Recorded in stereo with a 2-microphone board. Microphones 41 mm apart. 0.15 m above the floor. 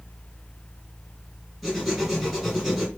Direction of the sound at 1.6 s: 5° right (ahead or behind).